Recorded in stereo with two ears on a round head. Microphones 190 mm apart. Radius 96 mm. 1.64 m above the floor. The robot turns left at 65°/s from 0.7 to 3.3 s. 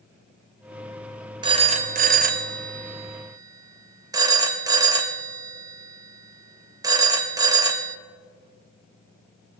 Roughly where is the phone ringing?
Right.